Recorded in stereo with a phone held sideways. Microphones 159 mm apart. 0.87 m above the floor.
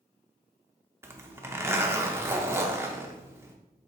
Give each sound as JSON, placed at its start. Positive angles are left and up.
{"t": 1.0, "sound": "a zipper", "side_deg": -15, "distance_m": 0.6}